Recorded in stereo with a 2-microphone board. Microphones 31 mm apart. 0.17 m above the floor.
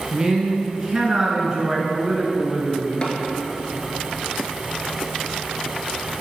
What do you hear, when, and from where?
0.1 s a man speaking: 25° right (ahead or behind), 1.6 m
3.0 s tapping: 25° left (ahead or behind), 1.1 m